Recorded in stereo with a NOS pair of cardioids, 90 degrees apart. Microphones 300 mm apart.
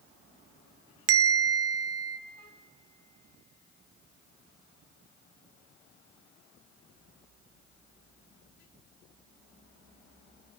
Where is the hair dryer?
No hair dryer in this recording.